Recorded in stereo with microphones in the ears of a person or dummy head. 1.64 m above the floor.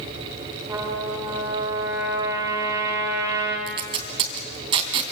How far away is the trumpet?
About 2.5 m.